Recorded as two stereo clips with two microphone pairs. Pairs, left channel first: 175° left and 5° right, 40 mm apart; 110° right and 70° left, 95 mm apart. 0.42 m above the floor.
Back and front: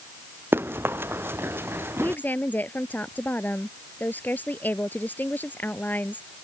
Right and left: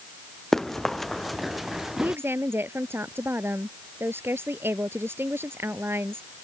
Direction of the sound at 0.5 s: 25° right.